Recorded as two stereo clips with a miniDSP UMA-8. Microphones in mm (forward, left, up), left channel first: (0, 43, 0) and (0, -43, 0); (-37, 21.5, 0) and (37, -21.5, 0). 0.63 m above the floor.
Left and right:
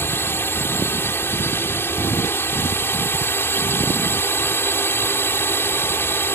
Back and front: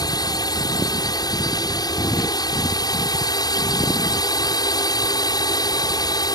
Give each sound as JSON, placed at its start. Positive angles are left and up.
{"t": 0.0, "sound": "a drone", "azimuth_deg": 145}